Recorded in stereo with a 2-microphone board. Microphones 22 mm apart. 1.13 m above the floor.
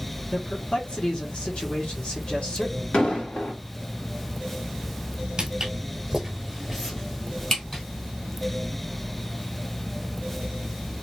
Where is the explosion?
80° left, 1.6 m.